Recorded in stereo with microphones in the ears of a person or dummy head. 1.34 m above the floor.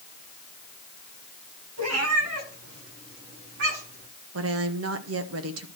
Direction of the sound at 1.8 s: 85° right.